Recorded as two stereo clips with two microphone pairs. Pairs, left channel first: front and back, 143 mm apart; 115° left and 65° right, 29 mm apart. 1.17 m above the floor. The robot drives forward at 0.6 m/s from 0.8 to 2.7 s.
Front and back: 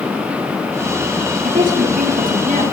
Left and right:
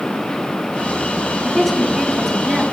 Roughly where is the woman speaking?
Behind right.